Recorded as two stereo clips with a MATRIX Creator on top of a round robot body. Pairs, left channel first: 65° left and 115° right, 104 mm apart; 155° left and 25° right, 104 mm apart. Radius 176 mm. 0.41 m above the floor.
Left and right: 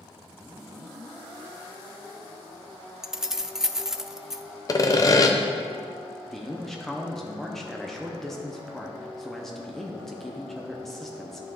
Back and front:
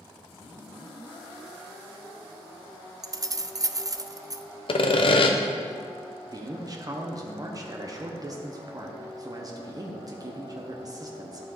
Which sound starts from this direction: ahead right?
Keys jangling, at 3.0 s.